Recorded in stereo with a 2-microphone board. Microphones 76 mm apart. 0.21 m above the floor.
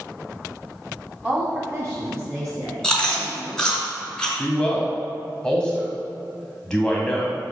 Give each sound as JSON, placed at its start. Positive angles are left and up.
{"t": 1.2, "sound": "a woman speaking", "side_deg": -15, "distance_m": 1.3}
{"t": 2.8, "sound": "chewing", "side_deg": 10, "distance_m": 2.5}
{"t": 4.4, "sound": "a man speaking", "side_deg": 10, "distance_m": 1.4}